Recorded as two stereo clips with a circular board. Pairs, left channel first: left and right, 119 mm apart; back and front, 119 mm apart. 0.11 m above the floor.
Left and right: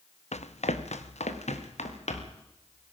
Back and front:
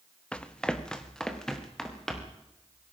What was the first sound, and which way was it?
Running footsteps, 100° left.